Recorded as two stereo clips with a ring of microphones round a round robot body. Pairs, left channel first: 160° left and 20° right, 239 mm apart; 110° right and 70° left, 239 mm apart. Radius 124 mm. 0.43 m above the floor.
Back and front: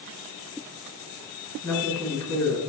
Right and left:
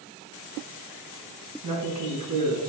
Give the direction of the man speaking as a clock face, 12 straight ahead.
10 o'clock.